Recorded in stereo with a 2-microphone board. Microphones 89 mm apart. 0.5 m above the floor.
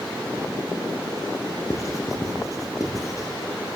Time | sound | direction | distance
1.7 | writing | 35° left (ahead or behind) | 4.5 m